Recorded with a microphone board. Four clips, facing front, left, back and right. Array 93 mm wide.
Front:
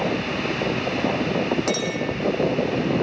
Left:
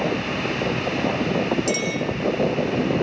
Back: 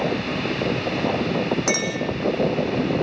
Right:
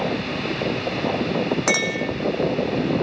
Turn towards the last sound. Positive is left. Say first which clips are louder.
# right 1 dB, even
turn(degrees=-100)